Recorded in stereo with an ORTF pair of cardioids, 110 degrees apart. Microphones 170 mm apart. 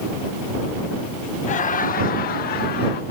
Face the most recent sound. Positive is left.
turn(degrees=75)